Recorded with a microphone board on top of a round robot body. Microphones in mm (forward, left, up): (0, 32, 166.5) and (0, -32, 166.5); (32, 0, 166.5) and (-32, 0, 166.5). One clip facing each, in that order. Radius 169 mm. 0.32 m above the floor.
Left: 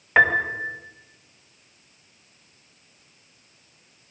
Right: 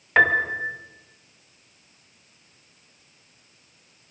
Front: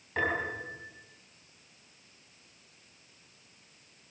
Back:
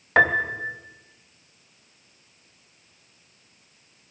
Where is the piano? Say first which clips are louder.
Even, back 11 dB; 175° left, 2.5 m.